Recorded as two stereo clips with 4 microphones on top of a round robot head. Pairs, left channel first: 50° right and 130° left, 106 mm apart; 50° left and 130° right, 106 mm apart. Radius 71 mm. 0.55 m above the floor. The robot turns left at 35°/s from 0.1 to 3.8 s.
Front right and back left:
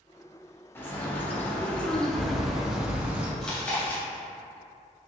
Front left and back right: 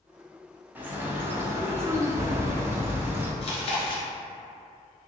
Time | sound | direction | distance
0.8 | a bird | 80° right | 0.7 m
3.4 | chewing | 35° left | 0.9 m